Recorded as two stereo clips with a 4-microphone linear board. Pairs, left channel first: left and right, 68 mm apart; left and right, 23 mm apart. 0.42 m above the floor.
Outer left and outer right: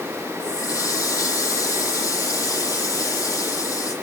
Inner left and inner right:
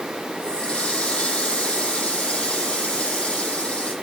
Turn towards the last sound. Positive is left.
turn(degrees=50)  # may be behind; listen again after turning